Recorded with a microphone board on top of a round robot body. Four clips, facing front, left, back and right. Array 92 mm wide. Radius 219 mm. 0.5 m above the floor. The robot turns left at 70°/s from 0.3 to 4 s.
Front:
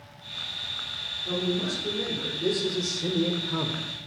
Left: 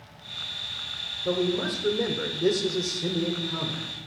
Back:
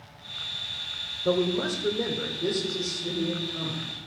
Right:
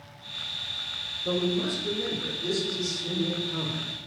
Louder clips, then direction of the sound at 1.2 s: Left 1 dB, back 4 dB; 170° left.